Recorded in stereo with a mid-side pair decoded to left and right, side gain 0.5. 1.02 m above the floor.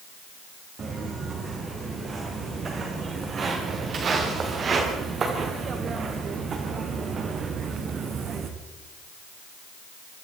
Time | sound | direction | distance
0.8 | footsteps | 40° right | 9 m